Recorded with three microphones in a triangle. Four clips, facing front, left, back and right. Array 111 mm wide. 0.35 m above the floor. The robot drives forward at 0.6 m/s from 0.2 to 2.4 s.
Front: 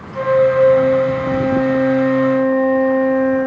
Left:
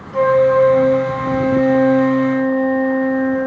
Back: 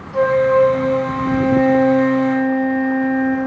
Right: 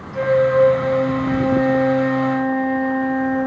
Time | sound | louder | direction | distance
0.1 | a flute | left 3 dB, even | 115° left | 1.1 m